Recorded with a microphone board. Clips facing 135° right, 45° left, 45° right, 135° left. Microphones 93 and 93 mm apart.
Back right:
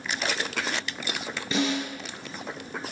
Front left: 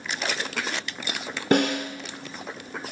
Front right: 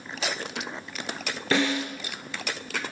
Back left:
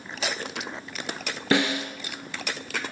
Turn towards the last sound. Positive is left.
turn(degrees=65)